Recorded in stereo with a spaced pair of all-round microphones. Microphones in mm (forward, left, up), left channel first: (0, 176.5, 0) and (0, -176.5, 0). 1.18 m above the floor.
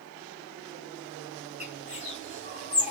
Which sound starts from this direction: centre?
A bird, at 1.6 s.